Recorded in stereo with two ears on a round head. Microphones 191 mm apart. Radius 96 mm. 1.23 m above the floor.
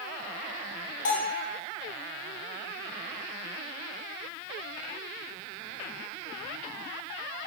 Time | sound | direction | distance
1.1 | a bell | 55° left (ahead or behind) | 1.5 m